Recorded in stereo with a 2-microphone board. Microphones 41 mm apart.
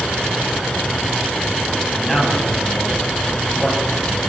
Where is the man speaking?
5° left (ahead or behind), 8.5 m.